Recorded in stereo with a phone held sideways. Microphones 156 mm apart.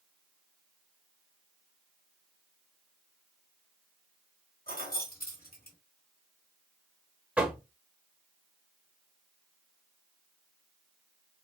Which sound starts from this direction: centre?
Knocking, at 7.4 s.